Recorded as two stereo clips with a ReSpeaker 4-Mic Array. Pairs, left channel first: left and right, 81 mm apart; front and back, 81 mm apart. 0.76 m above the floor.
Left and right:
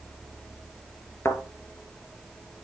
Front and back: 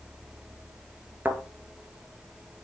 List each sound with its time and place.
1.2 s a thud: 130° left, 1.0 m